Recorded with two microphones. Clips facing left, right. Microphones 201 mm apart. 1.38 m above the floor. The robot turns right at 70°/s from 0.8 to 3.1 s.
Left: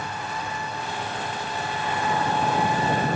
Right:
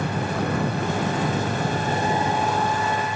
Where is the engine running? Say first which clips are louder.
Right 8 dB; 120° right; by 3.2 s 45° left.